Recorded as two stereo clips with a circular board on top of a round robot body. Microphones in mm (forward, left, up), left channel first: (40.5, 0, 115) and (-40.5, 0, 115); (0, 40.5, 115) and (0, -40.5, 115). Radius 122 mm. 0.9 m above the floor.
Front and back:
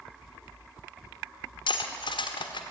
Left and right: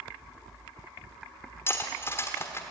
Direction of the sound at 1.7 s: 30° left.